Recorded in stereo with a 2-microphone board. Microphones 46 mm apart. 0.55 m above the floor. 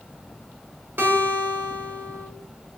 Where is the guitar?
55° right (ahead or behind), 1.1 m.